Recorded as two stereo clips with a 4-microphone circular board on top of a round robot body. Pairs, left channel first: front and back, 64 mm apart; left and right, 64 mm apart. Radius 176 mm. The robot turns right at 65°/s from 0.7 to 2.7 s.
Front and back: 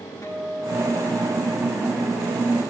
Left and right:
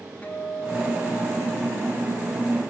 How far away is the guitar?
About 3 m.